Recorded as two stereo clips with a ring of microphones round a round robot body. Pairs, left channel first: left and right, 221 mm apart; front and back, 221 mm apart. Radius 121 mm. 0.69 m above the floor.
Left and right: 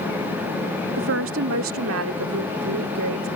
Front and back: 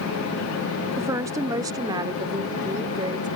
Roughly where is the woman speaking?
Right.